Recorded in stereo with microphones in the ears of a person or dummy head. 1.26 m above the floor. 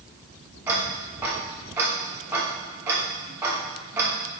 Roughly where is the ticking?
Centre.